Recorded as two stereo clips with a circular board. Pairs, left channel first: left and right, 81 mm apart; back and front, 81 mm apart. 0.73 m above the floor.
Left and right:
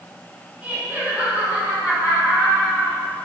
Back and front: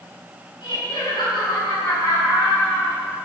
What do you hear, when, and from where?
0.6 s laughter: 170° right, 4 m; by 3.0 s straight behind, 5.5 m